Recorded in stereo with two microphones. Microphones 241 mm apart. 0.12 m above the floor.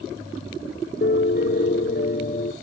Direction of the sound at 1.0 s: 40° left (ahead or behind).